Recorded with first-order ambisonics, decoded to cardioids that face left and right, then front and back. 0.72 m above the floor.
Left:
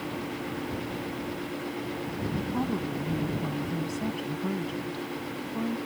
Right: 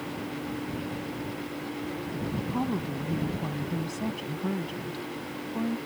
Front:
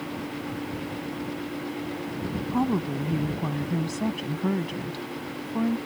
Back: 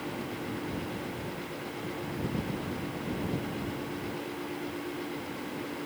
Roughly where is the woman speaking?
Ahead.